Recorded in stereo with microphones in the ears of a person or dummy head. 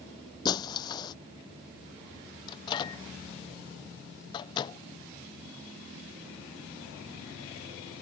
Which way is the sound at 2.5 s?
25° left (ahead or behind).